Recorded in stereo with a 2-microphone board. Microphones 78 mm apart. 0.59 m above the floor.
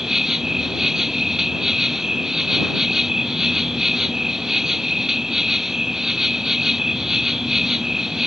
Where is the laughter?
I don't hear laughter.